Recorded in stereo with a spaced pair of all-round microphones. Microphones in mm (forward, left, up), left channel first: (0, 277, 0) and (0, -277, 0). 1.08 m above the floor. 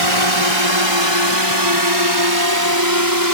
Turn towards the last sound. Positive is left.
turn(degrees=-35)  # may be behind; listen again after turning